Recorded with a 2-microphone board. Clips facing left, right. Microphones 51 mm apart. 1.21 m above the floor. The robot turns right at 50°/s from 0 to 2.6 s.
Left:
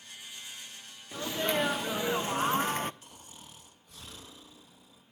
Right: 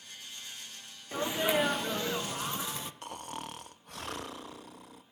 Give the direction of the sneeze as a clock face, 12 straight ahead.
1 o'clock.